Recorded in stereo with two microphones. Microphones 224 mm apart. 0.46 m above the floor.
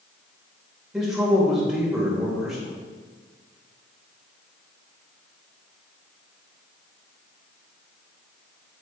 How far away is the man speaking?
About 1.9 m.